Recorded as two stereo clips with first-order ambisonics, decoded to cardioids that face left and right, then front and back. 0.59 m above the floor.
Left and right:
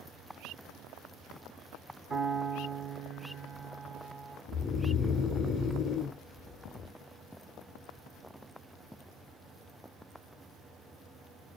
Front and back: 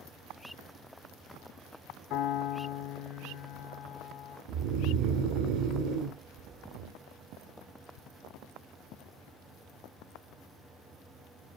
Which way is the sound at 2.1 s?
30° right.